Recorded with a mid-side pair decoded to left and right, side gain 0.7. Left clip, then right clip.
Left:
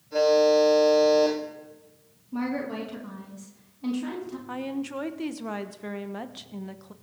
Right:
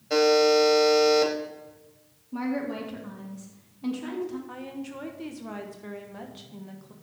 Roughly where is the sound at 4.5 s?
Ahead left.